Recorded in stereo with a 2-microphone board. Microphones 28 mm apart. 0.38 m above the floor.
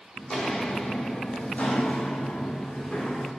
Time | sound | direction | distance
0.2 | footsteps | 35° left (ahead or behind) | 0.9 m